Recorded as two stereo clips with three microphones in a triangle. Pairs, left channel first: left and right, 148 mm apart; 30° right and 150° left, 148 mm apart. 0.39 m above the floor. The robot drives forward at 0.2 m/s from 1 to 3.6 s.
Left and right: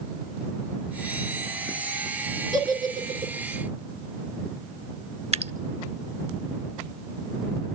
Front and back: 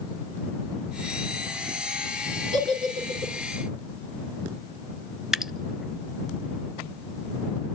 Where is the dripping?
125° right, 0.6 m.